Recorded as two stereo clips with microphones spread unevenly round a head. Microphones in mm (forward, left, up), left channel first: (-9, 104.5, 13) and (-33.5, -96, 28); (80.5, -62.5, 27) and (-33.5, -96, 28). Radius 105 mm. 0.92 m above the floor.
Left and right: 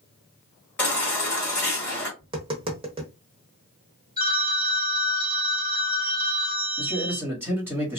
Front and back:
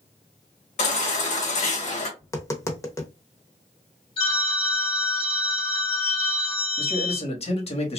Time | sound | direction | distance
0.8 | a baby crying | straight ahead | 1.2 m
2.2 | tapping | 40° right | 0.8 m
4.2 | a phone ringing | 25° right | 1.5 m
6.8 | a man speaking | 15° right | 1.4 m